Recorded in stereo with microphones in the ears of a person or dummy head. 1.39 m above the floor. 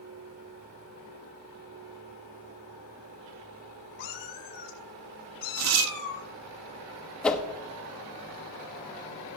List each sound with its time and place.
4.0 s a cat meowing: 55° left (ahead or behind), 4 m
5.6 s tearing paper: 75° right (ahead or behind), 0.6 m
7.2 s a whoosh: centre (ahead or behind), 1.0 m